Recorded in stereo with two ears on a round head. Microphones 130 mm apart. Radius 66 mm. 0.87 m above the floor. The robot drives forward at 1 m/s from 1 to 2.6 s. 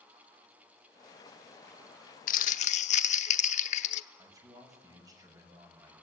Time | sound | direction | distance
2.3 | crumpling | 65° left (ahead or behind) | 0.7 m
4.2 | a man speaking | 25° right (ahead or behind) | 6 m